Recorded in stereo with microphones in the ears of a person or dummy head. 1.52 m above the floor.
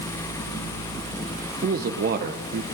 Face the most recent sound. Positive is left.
turn(degrees=-45)  # may be behind; listen again after turning